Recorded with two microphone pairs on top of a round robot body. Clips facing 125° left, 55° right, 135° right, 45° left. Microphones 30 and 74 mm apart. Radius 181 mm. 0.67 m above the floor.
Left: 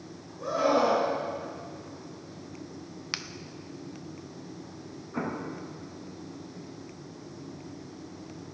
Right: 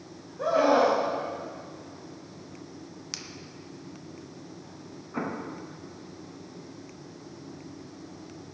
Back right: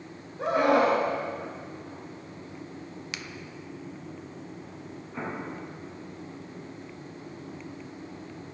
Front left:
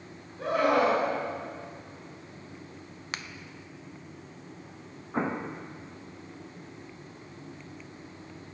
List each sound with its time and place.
0.4 s a scream: 65° right, 5 m
3.1 s a finger snap: 80° left, 0.9 m
5.1 s an explosion: 25° left, 1.6 m